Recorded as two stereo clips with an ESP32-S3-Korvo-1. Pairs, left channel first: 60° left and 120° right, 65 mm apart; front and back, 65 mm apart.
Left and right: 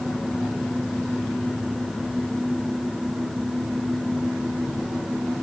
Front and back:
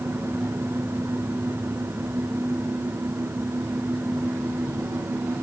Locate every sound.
Only background noise.